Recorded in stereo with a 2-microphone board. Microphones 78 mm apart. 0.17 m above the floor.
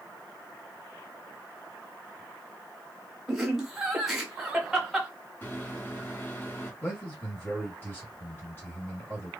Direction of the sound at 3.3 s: Centre (ahead or behind).